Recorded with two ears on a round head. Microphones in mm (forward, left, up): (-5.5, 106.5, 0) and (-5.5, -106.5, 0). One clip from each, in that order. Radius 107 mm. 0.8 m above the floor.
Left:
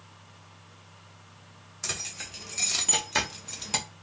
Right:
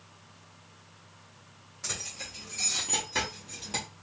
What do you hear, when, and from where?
1.8 s keys jangling: 50° left (ahead or behind), 1.8 m; by 3.9 s 40° left (ahead or behind), 0.7 m